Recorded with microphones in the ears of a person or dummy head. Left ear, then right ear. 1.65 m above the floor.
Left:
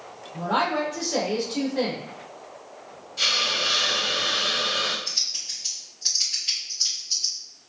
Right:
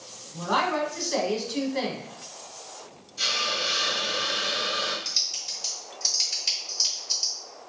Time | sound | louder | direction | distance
0.3 | a woman speaking | left 1 dB | 55° right (ahead or behind) | 1.2 m
3.2 | a hiss | left 3 dB | 25° left (ahead or behind) | 0.7 m
5.0 | typing on a keyboard | left 1 dB | 45° right (ahead or behind) | 0.9 m